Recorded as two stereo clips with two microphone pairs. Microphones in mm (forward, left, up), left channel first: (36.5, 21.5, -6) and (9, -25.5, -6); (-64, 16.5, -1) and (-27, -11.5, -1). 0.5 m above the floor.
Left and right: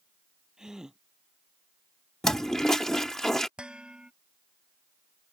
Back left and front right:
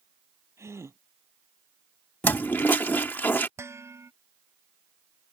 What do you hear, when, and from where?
0.6 s a gasp: 45° right
2.2 s a toilet flushing: 135° left
3.6 s dishes clattering: 50° right